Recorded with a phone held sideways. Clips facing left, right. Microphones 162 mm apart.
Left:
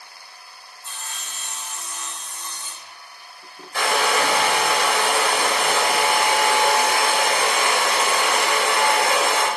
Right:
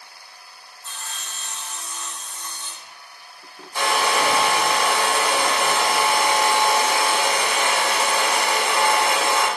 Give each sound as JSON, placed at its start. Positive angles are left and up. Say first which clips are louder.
{"t": 0.8, "sound": "sawing", "louder": "right 1 dB", "side_deg": 10, "distance_m": 1.8}
{"t": 3.7, "sound": "a hair dryer", "louder": "even", "side_deg": 80, "distance_m": 5.0}